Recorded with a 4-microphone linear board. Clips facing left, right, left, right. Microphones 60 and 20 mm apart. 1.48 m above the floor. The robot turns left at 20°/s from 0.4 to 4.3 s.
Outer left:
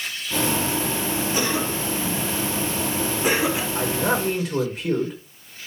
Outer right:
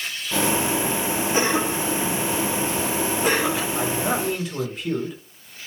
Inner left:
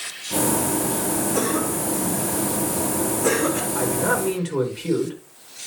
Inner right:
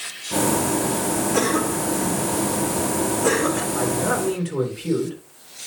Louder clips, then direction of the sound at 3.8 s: Outer left 1 dB, even; 50° left (ahead or behind).